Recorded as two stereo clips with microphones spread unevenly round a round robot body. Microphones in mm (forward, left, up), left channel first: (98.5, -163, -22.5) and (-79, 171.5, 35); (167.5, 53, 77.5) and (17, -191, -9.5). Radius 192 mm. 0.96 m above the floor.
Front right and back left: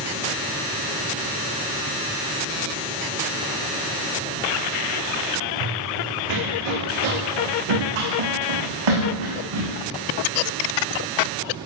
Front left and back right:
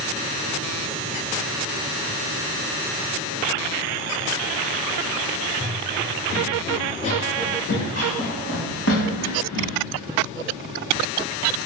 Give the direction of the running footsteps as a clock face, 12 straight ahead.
7 o'clock.